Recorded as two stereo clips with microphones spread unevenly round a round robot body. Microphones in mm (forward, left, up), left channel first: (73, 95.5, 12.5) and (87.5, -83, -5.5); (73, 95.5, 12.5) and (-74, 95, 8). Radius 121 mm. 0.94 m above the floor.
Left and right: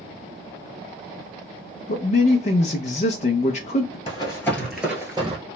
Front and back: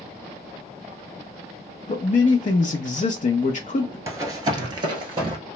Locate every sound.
1.9 s a man speaking: 40° left, 0.5 m
4.1 s running footsteps: 125° left, 1.1 m; by 5.4 s 140° right, 1.1 m